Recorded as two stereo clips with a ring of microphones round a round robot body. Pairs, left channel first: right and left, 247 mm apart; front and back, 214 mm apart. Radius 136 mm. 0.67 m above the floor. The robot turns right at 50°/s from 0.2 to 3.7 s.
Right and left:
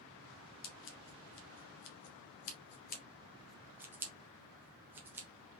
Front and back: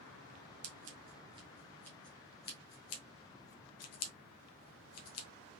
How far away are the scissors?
About 0.9 m.